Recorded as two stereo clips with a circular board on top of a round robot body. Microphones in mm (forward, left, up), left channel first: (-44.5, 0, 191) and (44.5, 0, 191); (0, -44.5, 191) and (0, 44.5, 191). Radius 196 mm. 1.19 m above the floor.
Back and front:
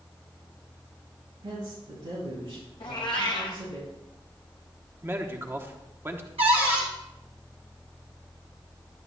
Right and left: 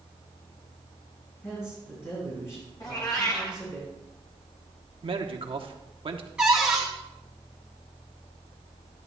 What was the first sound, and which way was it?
A man speaking, 30° right.